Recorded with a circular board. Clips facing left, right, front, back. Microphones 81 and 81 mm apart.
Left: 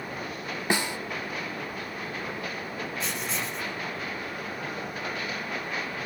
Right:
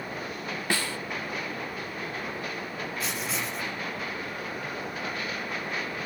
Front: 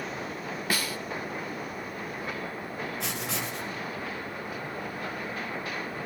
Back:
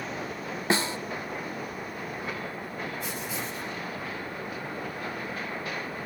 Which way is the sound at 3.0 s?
5° right.